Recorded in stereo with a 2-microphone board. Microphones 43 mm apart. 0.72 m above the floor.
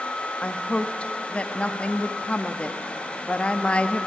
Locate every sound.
0.4 s a woman speaking: 25° left (ahead or behind), 0.8 m